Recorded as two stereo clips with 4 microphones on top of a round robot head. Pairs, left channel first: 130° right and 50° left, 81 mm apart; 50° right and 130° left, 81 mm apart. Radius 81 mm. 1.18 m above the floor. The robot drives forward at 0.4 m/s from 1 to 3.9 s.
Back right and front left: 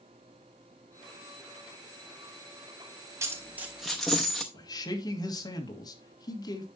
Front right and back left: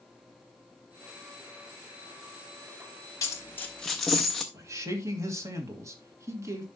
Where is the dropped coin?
Straight ahead, 0.5 m; by 4.4 s 75° right, 0.5 m.